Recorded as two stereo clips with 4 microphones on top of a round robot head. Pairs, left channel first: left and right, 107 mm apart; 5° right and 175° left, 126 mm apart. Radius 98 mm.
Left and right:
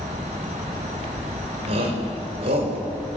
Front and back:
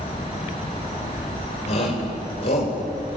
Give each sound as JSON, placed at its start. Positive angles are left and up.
{"t": 1.7, "sound": "a shout", "azimuth_deg": -50, "distance_m": 5.0}